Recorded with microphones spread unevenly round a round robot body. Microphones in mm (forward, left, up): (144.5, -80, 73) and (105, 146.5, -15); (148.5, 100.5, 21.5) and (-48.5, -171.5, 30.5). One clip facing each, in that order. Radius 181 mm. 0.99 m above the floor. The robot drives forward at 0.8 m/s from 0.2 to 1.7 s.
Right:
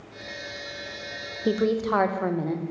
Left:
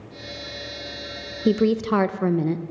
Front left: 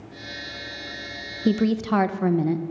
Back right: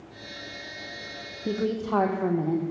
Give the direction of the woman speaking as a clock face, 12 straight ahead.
10 o'clock.